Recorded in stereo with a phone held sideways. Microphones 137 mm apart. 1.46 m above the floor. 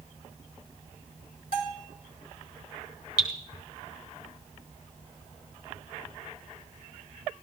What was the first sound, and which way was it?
A bell, 80° left.